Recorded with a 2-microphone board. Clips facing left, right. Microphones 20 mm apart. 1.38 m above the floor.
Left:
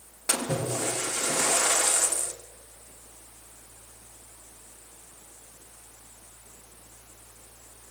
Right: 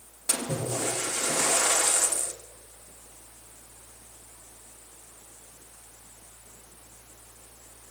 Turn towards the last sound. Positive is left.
turn(degrees=20)  # may be behind; listen again after turning